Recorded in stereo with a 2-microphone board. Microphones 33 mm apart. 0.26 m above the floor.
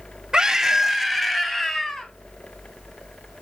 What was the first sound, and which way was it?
A scream, 20° right (ahead or behind).